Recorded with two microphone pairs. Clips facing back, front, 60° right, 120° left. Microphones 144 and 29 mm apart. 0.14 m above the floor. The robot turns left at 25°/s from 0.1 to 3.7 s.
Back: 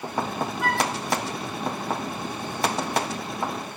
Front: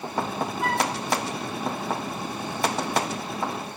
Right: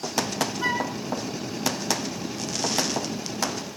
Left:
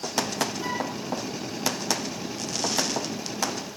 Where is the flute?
40° right, 1.5 m; by 0.9 s 50° right, 1.5 m.